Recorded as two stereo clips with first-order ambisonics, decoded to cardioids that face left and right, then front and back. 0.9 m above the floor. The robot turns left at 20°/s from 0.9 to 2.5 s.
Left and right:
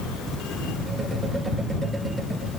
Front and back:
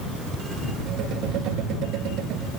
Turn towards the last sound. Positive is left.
No sound to turn to.